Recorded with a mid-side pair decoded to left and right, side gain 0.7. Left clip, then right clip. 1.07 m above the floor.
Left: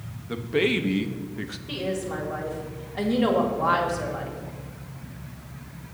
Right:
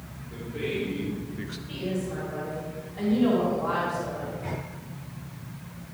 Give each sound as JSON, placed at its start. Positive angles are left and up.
{"t": 0.3, "sound": "a man speaking", "azimuth_deg": 70, "distance_m": 1.3}
{"t": 1.7, "sound": "a woman speaking", "azimuth_deg": 45, "distance_m": 3.0}